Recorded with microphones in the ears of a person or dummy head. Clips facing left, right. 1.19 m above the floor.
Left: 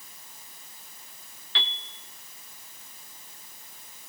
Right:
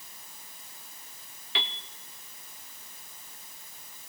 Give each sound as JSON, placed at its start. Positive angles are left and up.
{"t": 1.6, "sound": "a piano", "side_deg": -15, "distance_m": 0.8}